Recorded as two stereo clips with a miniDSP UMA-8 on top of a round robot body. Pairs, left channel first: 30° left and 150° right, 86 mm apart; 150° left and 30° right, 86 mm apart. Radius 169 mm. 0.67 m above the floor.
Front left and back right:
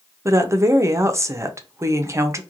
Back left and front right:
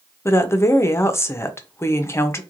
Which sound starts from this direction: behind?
A woman speaking, at 0.2 s.